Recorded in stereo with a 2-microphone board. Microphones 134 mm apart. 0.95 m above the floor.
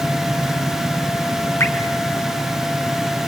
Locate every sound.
1.6 s dripping: 20° left (ahead or behind), 2 m